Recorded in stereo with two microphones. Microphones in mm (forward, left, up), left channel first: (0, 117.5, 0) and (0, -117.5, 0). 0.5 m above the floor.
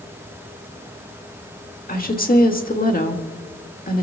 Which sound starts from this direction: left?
A woman speaking, at 1.9 s.